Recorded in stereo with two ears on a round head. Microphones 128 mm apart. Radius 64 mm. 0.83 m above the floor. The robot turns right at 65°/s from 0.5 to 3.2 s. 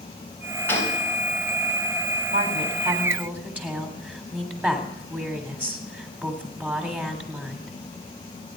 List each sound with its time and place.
0.7 s a gunshot: 15° left (ahead or behind), 3.5 m; by 1.0 s 40° left (ahead or behind), 3.5 m
2.3 s a woman speaking: 70° right, 3 m; by 7.7 s 10° right, 3 m